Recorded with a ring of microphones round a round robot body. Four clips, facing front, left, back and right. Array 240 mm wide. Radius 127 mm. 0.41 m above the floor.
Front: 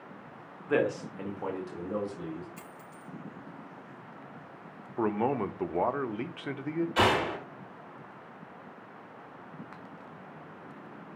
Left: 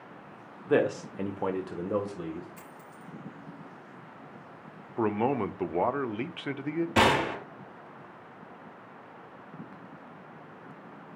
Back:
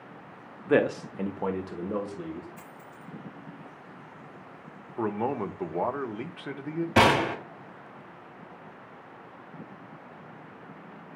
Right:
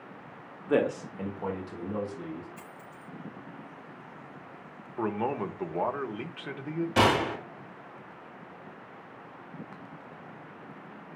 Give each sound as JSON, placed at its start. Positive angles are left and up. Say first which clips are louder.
{"t": 0.7, "sound": "a man speaking", "louder": "left 1 dB, back 4 dB", "azimuth_deg": 180, "distance_m": 1.0}
{"t": 2.6, "sound": "a dropped coin", "louder": "right 1 dB, back 1 dB", "azimuth_deg": 40, "distance_m": 4.5}
{"t": 5.0, "sound": "a man speaking", "louder": "left 3 dB, front 1 dB", "azimuth_deg": 80, "distance_m": 0.7}
{"t": 7.0, "sound": "a gunshot", "louder": "even, back 5 dB", "azimuth_deg": 165, "distance_m": 2.5}